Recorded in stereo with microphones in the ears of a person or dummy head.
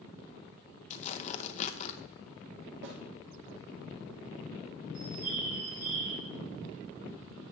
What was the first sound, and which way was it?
Tearing paper, 40° left (ahead or behind).